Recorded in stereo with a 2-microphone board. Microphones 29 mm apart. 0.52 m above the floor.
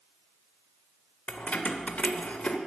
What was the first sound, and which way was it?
Keys jangling, 65° left (ahead or behind).